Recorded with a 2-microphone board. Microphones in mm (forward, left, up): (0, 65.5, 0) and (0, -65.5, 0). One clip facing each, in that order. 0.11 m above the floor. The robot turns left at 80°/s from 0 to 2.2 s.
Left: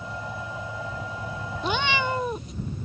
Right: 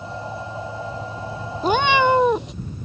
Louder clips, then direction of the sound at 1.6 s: Right 9 dB; 40° right.